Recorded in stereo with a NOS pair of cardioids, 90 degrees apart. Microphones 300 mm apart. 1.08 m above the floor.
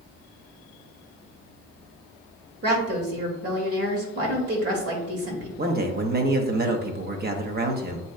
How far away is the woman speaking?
About 2.0 m.